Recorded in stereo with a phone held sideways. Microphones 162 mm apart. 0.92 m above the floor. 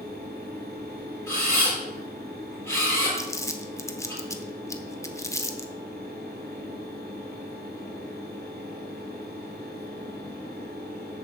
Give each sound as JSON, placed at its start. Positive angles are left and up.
{"t": 0.0, "sound": "a fan", "side_deg": -85, "distance_m": 2.5}
{"t": 1.3, "sound": "a camera shutter", "side_deg": 15, "distance_m": 5.5}
{"t": 3.1, "sound": "crumpling", "side_deg": 20, "distance_m": 0.9}